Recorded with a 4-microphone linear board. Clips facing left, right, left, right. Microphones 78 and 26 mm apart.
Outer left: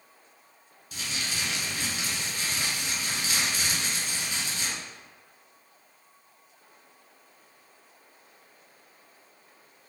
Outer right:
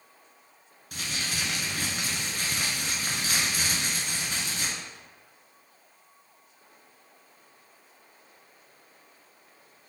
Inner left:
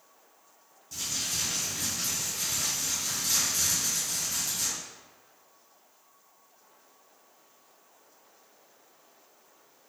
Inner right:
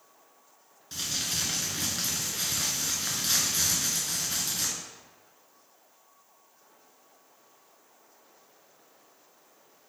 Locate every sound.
0.9 s crumpling: 60° right (ahead or behind), 0.9 m